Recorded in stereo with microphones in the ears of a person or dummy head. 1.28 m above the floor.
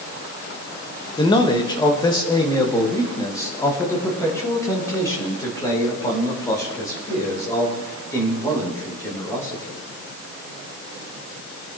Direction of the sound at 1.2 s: 20° left (ahead or behind).